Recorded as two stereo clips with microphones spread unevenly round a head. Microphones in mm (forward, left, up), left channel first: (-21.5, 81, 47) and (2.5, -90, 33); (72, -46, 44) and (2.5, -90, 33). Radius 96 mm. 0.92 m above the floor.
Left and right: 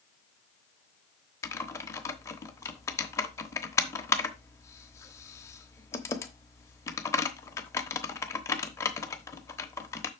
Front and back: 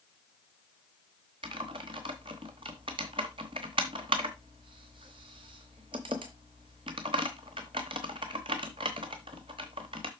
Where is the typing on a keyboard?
165° left, 0.9 m.